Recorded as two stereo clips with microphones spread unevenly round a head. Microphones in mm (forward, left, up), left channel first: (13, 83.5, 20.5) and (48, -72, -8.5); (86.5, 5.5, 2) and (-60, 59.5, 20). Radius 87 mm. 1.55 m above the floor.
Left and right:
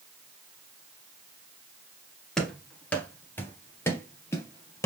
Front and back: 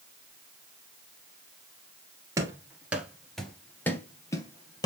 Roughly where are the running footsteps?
Behind.